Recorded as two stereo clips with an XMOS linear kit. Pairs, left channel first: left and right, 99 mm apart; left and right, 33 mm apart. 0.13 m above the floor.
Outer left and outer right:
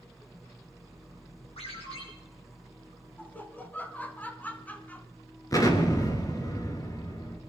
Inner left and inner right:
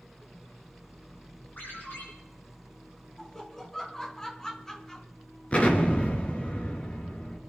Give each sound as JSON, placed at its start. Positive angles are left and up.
{"t": 1.6, "sound": "a ringtone", "side_deg": 80, "distance_m": 6.0}
{"t": 3.2, "sound": "laughter", "side_deg": 15, "distance_m": 1.2}
{"t": 5.5, "sound": "an explosion", "side_deg": 35, "distance_m": 2.0}